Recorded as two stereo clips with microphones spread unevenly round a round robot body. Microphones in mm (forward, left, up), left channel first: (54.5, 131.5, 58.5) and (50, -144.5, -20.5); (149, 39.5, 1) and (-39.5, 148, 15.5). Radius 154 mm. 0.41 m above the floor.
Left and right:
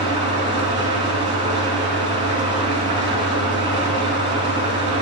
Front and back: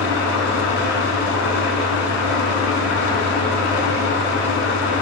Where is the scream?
No scream in this recording.